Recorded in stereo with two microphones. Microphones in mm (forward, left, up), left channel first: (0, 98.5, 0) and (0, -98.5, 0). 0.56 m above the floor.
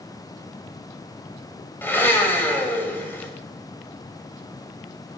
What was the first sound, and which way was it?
A blender, 10° left (ahead or behind).